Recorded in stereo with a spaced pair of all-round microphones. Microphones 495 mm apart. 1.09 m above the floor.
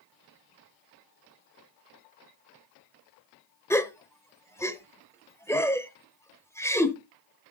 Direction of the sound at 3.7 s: 5° left (ahead or behind).